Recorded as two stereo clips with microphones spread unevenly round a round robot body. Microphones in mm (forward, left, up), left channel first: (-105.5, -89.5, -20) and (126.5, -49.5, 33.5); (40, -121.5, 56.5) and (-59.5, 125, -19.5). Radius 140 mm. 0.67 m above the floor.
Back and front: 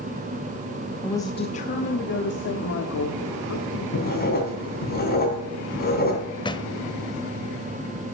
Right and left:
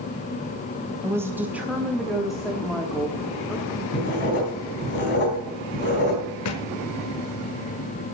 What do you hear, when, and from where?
1.0 s a woman speaking: 140° left, 0.6 m; by 3.8 s 160° right, 1.8 m
3.9 s writing: 120° right, 3.5 m
6.5 s a thud: 95° right, 0.9 m